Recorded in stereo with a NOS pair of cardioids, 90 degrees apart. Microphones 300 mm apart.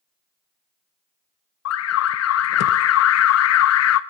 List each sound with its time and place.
1.6 s an alarm: 55° left, 0.6 m